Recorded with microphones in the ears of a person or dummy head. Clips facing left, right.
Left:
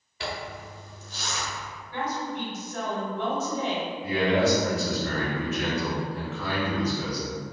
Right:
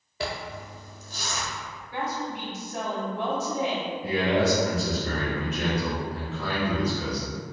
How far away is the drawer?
No drawer in this recording.